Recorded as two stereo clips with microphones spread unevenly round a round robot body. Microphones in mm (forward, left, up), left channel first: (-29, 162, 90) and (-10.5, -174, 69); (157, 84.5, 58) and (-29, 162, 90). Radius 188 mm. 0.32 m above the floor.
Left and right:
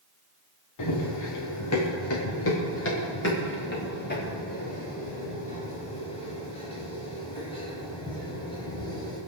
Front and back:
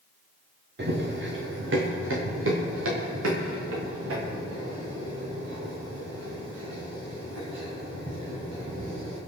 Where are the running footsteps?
125° left, 3.5 m; by 9.2 s 170° left, 9.5 m.